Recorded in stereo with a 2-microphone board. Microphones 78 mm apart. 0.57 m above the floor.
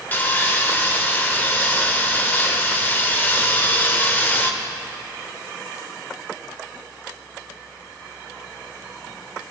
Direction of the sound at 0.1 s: 25° left (ahead or behind).